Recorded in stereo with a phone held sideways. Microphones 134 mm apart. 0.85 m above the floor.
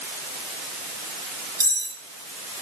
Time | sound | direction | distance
1.6 | cutlery clinking | 25° right (ahead or behind) | 1.9 m